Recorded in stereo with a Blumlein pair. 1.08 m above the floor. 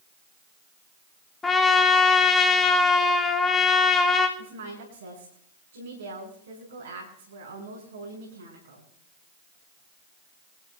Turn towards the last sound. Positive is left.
turn(degrees=-70)